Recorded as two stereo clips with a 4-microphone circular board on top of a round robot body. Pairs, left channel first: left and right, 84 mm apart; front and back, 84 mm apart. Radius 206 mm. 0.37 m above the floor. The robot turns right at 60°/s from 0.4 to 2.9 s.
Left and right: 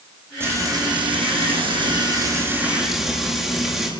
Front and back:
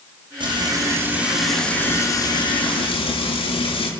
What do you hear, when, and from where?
0.4 s frying: 155° right, 6.5 m; by 3.9 s 5° right, 6.5 m